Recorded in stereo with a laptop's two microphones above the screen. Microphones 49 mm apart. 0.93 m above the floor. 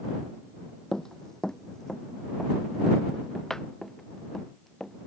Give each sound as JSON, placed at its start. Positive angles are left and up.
{"t": 0.9, "sound": "running footsteps", "side_deg": 15}